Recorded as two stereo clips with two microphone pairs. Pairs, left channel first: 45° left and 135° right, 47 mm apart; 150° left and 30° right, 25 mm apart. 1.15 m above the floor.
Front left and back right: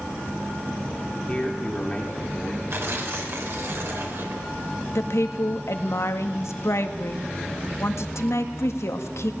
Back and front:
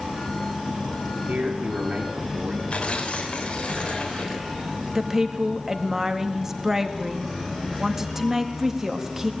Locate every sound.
1.3 s a man speaking: 20° right, 3.5 m
2.7 s tearing paper: 165° right, 3.5 m
5.0 s a woman speaking: 40° left, 1.8 m